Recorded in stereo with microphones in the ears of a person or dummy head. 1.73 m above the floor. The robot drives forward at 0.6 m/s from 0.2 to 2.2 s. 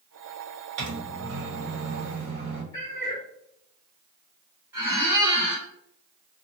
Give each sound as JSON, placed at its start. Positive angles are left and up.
{"t": 0.8, "sound": "a microwave", "side_deg": -65, "distance_m": 1.0}
{"t": 2.7, "sound": "a cat meowing", "side_deg": 20, "distance_m": 1.9}
{"t": 4.7, "sound": "a squeak", "side_deg": -10, "distance_m": 1.3}